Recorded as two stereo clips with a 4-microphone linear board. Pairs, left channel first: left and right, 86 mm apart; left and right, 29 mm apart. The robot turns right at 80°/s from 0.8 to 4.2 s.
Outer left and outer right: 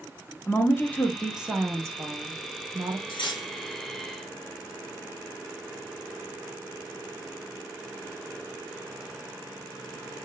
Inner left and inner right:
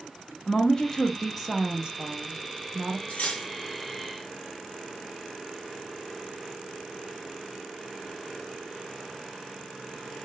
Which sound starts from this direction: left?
Cutlery clinking, at 3.1 s.